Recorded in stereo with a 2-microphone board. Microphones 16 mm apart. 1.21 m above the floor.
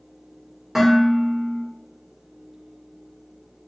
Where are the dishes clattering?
30° right (ahead or behind), 2.5 m.